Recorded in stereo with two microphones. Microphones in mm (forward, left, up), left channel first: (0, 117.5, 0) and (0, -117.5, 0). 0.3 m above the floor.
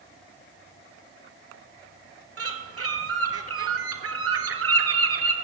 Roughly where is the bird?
Right.